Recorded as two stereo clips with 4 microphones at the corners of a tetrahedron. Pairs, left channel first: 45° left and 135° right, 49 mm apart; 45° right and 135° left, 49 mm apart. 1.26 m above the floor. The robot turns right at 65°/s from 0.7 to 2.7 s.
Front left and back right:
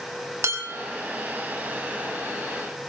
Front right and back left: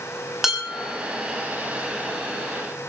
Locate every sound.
0.4 s dishes clattering: 145° right, 5.5 m; by 0.9 s 130° right, 5.5 m